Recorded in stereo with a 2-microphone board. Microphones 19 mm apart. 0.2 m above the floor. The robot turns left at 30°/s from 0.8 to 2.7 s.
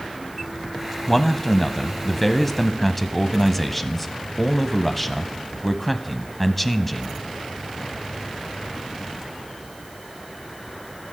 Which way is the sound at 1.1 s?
15° left (ahead or behind).